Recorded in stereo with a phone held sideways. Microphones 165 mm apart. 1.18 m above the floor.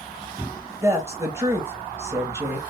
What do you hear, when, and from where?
0.8 s a woman speaking: 15° right (ahead or behind), 1.5 m